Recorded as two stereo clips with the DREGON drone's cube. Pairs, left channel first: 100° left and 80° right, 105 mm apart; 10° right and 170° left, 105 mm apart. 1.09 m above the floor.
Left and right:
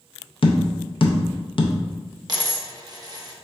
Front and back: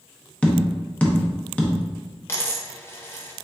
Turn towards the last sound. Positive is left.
turn(degrees=-65)